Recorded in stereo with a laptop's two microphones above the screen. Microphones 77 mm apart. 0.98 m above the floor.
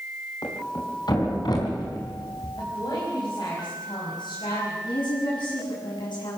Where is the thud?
65° left (ahead or behind), 4 m.